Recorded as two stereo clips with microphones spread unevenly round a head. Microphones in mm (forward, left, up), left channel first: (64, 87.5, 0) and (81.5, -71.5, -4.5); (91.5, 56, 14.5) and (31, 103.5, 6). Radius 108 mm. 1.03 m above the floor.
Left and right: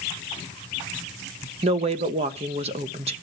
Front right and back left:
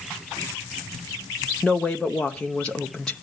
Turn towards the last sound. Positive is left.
turn(degrees=-125)